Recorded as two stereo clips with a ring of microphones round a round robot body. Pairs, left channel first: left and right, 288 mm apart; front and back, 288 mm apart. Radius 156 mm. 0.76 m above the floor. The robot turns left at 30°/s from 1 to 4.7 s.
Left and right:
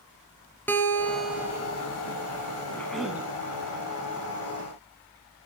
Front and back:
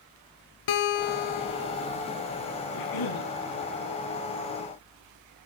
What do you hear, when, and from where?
0.7 s a guitar: 5° left, 3 m; by 1.9 s 20° right, 3 m
2.7 s a cough: 10° left, 6 m; by 3.3 s 10° right, 6 m